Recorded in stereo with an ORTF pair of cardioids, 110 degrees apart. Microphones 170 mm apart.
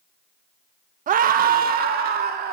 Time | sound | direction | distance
1.1 | a scream | 50° right | 1.1 m